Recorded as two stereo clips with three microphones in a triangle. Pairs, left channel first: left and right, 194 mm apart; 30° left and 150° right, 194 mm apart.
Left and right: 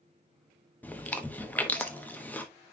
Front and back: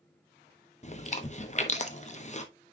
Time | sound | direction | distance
0.8 | chewing | 15° left | 0.9 m